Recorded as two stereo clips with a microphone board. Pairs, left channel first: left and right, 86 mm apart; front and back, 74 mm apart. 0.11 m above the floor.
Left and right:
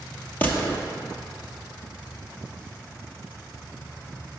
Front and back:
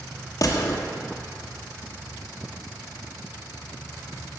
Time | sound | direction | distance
0.4 | a gunshot | 25° left | 1.1 m